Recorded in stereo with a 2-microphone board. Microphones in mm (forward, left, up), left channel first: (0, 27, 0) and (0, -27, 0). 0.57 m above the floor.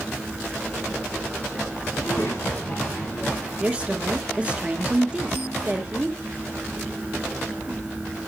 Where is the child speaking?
55° left (ahead or behind), 3.5 m; by 3.5 s 40° left (ahead or behind), 3.5 m.